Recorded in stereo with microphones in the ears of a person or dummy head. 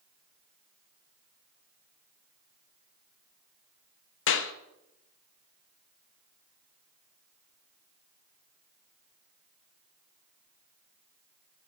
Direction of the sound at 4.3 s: 60° left (ahead or behind).